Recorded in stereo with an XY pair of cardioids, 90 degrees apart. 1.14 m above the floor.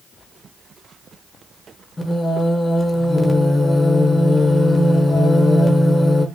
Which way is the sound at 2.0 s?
25° left.